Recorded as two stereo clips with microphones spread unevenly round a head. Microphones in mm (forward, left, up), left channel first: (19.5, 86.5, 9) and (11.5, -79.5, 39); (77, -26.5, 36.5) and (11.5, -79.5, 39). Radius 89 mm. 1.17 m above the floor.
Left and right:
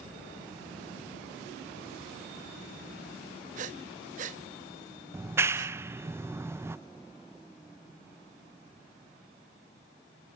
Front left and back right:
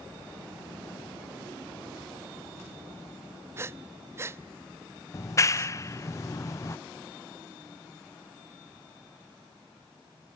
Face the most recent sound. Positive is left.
turn(degrees=-15)